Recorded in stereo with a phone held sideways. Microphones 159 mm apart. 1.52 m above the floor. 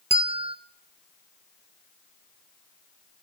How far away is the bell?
About 1.2 m.